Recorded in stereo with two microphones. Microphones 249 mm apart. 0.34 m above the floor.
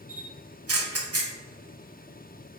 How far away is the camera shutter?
About 0.8 m.